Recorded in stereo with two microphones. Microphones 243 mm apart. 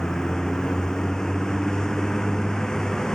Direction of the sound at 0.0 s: 5° left (ahead or behind).